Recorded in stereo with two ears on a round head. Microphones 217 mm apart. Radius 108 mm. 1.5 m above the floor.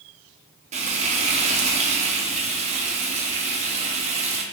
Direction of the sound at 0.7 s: 30° right (ahead or behind).